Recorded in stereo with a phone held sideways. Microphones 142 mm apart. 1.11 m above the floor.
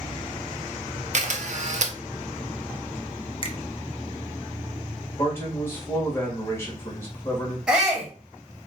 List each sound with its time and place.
1.1 s a camera shutter: 55° right (ahead or behind), 0.6 m
3.4 s a finger snap: 40° left (ahead or behind), 0.6 m
5.2 s a man speaking: 15° left (ahead or behind), 1.4 m
7.7 s a shout: 5° right (ahead or behind), 1.5 m